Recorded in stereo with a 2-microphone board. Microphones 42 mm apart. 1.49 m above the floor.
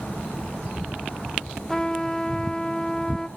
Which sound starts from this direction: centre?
A trumpet, at 1.7 s.